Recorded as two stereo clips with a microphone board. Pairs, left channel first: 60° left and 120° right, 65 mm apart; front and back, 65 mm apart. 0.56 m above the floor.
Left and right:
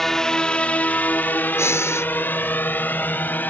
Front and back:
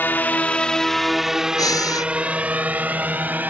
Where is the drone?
20° right; by 3.5 s 120° left.